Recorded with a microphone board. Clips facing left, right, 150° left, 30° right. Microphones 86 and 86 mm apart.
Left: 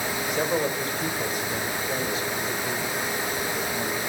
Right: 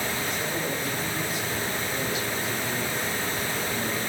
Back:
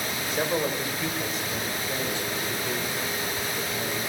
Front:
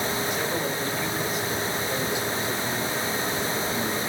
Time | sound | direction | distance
0.3 | a man speaking | 95° left | 2.5 m